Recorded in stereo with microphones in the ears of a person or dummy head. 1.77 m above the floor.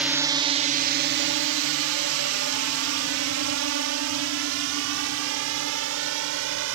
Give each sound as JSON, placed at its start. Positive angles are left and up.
{"t": 0.0, "sound": "a drone", "side_deg": -5}